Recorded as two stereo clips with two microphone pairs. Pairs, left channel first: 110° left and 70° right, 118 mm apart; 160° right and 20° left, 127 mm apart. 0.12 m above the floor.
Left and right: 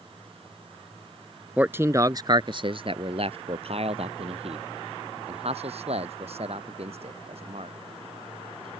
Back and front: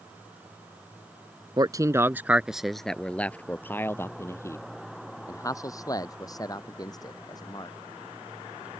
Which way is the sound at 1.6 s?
Straight ahead.